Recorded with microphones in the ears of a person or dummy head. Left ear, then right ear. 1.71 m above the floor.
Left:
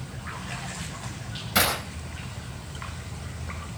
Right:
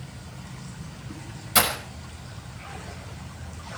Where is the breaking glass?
20° right (ahead or behind), 5.5 m.